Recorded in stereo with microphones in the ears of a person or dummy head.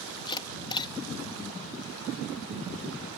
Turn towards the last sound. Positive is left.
turn(degrees=25)  # may be behind; listen again after turning